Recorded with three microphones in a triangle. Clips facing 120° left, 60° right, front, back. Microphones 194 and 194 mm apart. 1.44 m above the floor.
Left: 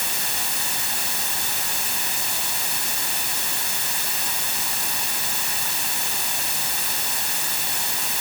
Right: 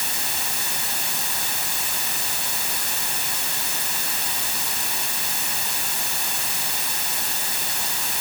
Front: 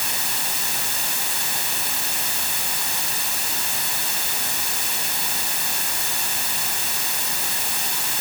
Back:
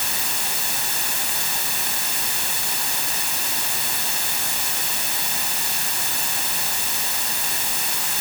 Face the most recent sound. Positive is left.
No sound to turn to.